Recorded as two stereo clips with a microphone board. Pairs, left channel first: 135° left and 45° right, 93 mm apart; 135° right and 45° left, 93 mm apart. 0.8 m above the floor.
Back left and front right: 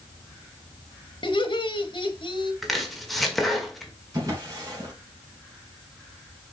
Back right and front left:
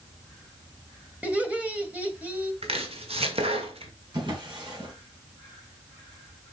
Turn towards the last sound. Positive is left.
turn(degrees=5)